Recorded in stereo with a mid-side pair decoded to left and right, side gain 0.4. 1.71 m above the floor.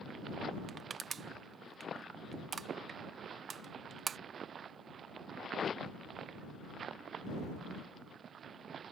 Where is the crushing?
50° right.